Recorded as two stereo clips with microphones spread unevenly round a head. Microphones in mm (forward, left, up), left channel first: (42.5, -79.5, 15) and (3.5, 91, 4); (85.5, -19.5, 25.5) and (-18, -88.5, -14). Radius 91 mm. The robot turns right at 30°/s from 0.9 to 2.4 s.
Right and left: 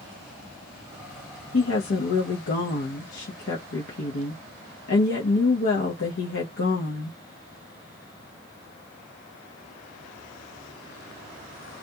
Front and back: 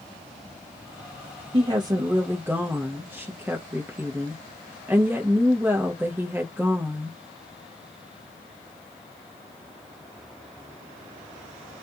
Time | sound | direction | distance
1.5 | a woman speaking | 90° right | 0.8 m